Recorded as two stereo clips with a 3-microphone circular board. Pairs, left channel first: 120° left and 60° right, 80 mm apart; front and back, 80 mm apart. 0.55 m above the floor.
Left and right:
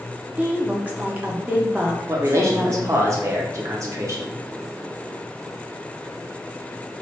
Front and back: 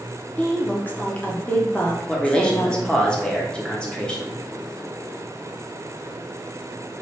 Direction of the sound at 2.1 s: 70° right.